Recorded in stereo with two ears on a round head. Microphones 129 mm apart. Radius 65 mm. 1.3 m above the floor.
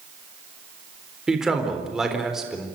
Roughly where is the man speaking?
Centre.